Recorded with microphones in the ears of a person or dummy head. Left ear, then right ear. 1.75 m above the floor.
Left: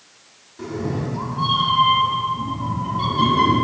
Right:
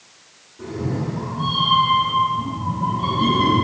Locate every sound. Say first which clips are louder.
0.6 s a cat meowing: left 1 dB; 60° left (ahead or behind), 2 m; by 3.5 s 70° left (ahead or behind), 3.5 m